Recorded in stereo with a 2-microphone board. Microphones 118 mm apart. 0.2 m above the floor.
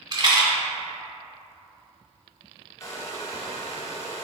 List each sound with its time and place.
0.1 s a rattle: 40° right (ahead or behind), 1.2 m
2.8 s a hair dryer: 30° left (ahead or behind), 0.9 m